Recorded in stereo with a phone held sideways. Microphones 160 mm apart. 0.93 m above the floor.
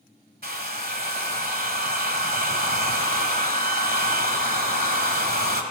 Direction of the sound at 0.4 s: 75° right (ahead or behind).